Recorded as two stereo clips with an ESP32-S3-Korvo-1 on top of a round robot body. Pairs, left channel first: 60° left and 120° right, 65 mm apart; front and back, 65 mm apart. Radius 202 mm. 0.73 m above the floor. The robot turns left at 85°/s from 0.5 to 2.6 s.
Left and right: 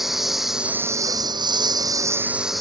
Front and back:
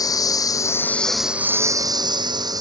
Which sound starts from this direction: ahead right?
A lawn mower, at 0.0 s.